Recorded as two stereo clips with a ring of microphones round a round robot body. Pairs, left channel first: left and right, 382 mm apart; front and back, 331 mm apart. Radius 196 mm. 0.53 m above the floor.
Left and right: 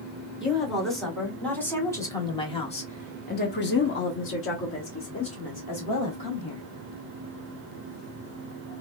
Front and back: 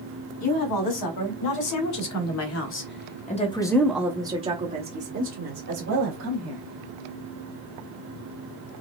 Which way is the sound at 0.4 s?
Straight ahead.